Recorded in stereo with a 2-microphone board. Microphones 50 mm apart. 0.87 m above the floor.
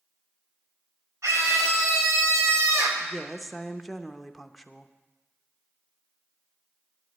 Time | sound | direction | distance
1.2 | a scream | 85° right | 3.5 m
3.0 | a woman speaking | centre (ahead or behind) | 0.7 m